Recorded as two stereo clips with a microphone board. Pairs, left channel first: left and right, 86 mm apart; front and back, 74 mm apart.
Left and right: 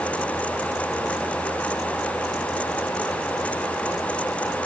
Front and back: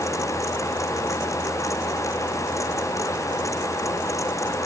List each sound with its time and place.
Only background noise.